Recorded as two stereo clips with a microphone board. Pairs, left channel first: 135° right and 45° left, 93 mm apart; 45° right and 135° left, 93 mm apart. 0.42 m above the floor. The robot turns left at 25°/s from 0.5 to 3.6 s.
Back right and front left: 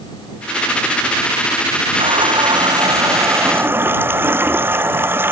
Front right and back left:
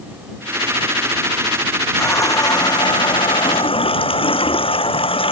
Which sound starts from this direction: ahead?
A running tap, at 2.0 s.